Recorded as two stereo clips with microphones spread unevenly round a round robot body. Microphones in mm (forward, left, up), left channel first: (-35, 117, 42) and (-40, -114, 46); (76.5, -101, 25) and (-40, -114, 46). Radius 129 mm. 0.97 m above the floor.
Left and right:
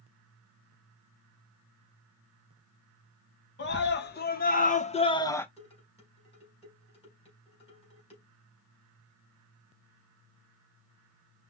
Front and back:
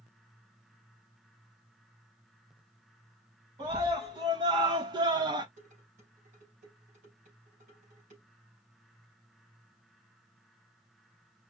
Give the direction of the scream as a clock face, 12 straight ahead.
8 o'clock.